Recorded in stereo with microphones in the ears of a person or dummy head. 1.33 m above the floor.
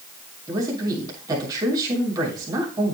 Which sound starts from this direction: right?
A man speaking, at 0.5 s.